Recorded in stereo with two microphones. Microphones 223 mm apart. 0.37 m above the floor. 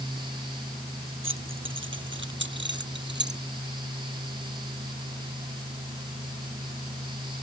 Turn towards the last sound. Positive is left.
turn(degrees=-55)  # may be behind; listen again after turning